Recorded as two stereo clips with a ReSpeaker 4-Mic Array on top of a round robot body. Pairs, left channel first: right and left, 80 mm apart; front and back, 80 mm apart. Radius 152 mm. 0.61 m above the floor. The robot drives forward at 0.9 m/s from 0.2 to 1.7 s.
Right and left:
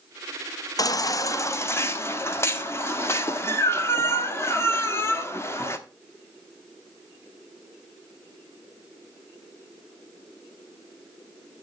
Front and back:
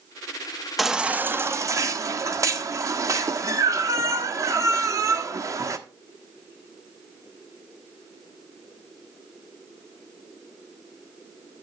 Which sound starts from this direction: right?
A baby crying, at 0.8 s.